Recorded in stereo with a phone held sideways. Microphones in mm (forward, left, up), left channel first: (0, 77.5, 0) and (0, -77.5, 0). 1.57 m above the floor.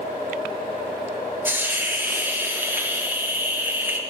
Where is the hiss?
15° right (ahead or behind), 1.1 m.